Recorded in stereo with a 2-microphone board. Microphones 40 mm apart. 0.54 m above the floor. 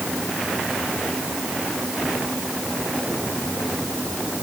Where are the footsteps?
I don't hear footsteps.